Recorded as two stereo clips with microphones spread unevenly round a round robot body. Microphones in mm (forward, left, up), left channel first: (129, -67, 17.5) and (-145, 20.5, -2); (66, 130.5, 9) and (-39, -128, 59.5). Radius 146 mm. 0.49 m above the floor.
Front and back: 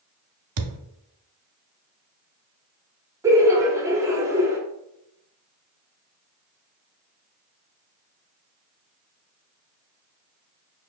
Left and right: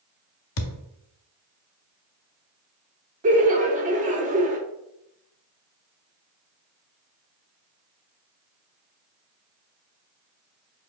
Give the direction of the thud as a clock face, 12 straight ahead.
8 o'clock.